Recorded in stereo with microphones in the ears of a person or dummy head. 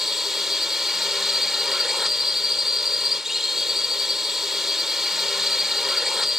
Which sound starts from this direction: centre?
A drone, at 0.0 s.